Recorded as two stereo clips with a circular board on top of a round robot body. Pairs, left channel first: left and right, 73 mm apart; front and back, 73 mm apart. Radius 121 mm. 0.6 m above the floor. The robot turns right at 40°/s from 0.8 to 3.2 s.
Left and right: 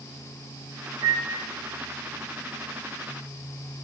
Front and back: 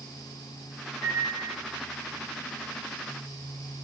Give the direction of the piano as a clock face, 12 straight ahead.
1 o'clock.